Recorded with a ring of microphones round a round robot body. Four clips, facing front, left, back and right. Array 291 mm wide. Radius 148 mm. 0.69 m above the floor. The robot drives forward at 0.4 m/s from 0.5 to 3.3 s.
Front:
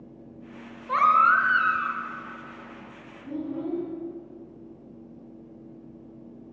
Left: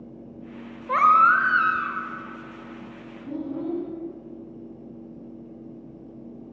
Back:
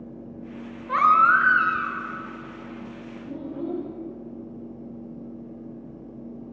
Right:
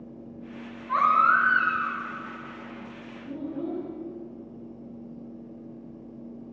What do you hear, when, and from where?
0.9 s a baby crying: 100° left, 1.4 m; by 2.0 s 115° left, 1.6 m
3.2 s a child speaking: 70° left, 5.5 m